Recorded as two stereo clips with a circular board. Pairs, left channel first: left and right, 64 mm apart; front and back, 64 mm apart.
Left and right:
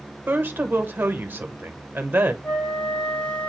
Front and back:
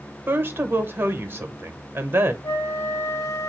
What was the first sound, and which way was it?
A woman speaking, 140° right.